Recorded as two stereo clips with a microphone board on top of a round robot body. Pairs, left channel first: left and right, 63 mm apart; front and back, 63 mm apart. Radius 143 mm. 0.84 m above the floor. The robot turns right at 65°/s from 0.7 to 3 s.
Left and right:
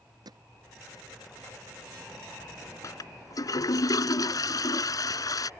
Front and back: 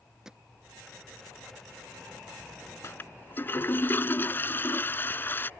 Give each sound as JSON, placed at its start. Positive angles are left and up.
{"t": 0.2, "sound": "hammering", "azimuth_deg": -100}
{"t": 2.8, "sound": "a toilet flushing", "azimuth_deg": 50}